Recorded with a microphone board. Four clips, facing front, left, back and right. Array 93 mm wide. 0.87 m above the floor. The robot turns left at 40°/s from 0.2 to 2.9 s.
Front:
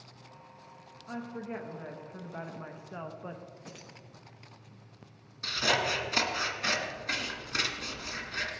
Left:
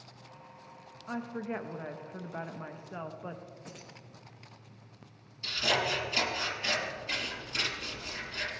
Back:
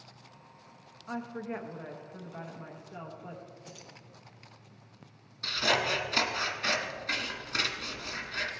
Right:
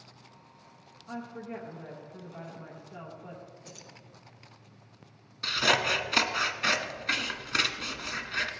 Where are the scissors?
80° right, 1.3 m.